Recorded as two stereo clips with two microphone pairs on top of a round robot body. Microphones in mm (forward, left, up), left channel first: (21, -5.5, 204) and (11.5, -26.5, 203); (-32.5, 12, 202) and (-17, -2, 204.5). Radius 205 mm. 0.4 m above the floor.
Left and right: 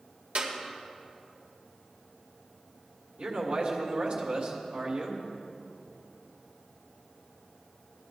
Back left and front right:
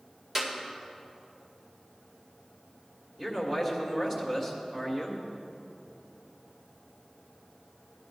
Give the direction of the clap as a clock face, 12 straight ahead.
4 o'clock.